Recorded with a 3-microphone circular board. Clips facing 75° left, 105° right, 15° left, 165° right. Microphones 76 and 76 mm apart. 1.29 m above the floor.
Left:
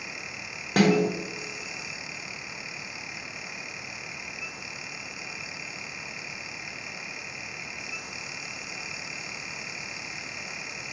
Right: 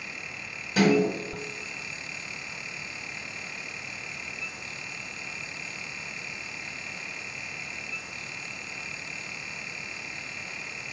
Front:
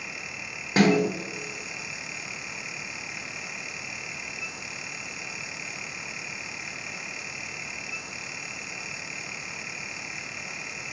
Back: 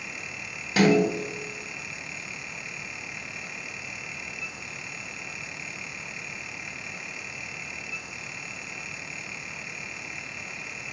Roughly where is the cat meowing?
I don't hear a cat meowing.